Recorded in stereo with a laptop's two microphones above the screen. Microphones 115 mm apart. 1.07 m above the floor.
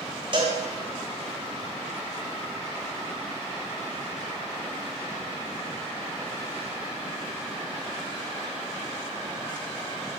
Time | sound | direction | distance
0.3 | a cowbell | 45° right (ahead or behind) | 0.6 m